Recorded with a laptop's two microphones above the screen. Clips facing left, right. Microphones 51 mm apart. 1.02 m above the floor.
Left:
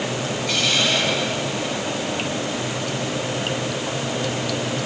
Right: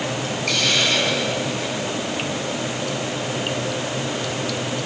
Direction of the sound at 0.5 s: 65° right (ahead or behind).